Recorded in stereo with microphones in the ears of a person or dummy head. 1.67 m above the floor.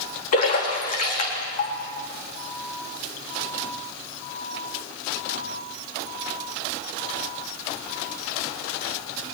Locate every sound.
0.3 s a splash: 50° left (ahead or behind), 3.5 m